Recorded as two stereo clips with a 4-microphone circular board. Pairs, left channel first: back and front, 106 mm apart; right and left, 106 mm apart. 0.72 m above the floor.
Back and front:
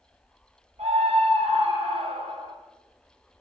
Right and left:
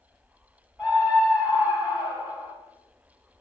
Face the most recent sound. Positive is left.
turn(degrees=20)